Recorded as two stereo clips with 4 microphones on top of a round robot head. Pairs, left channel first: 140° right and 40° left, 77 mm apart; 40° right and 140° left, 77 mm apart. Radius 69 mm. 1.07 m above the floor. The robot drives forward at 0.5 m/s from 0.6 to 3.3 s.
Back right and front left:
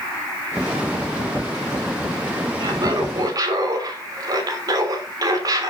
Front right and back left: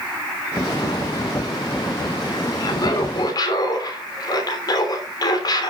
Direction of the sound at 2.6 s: Straight ahead.